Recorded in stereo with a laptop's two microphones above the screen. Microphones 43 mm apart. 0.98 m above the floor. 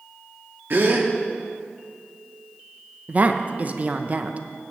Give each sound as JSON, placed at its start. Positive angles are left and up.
{"t": 0.7, "sound": "a gasp", "side_deg": -50, "distance_m": 0.8}
{"t": 3.1, "sound": "a woman speaking", "side_deg": -35, "distance_m": 0.5}